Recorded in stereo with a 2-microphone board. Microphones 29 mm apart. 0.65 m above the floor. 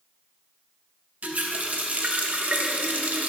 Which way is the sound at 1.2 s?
55° right (ahead or behind).